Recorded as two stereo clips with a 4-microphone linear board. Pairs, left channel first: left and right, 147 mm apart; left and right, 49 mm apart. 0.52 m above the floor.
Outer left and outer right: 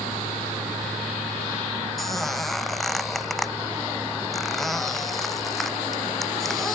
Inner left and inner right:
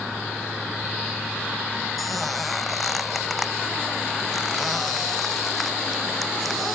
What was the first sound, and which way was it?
A squeak, centre (ahead or behind).